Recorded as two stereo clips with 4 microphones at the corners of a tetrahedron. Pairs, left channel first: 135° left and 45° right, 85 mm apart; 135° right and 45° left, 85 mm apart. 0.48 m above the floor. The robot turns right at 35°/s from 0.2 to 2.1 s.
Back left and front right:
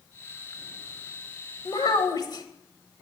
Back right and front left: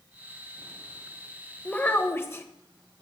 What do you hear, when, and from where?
1.6 s a child speaking: 150° left, 1.2 m; by 2.5 s 165° left, 1.2 m